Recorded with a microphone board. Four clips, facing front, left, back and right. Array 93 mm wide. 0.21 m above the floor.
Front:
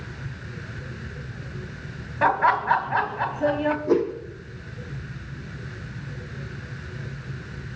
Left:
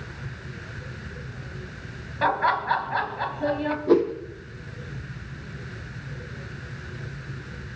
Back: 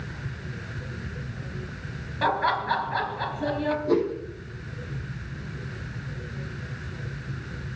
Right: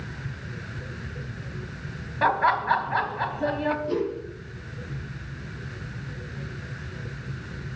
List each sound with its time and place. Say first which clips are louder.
2.2 s laughter: right 1 dB, front 4 dB; 15° right, 1.0 m
3.9 s a whoosh: left 7 dB, front 1 dB; 70° left, 2 m